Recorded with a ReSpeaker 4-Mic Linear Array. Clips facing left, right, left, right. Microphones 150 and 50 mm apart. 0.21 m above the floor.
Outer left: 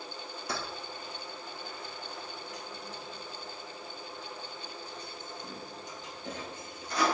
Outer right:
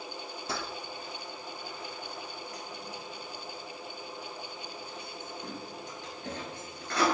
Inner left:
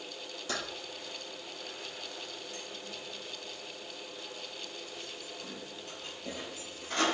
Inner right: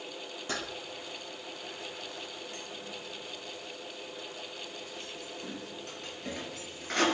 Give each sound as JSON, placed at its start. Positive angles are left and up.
{"t": 0.5, "sound": "keys jangling", "side_deg": -25, "distance_m": 3.5}